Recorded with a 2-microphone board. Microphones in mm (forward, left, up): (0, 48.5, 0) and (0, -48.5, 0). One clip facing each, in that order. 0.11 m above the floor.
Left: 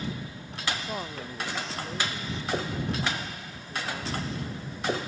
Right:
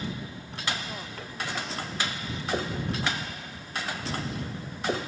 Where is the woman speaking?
30° left (ahead or behind).